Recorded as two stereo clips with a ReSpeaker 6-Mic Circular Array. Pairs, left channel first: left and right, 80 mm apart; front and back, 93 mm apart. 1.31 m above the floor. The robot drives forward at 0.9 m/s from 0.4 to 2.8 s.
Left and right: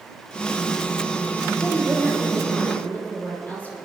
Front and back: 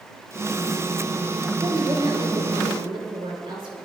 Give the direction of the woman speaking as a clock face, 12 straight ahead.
7 o'clock.